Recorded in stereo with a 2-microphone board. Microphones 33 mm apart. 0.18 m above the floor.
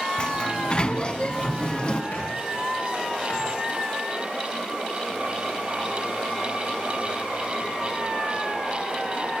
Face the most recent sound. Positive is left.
turn(degrees=75)  # may be behind; listen again after turning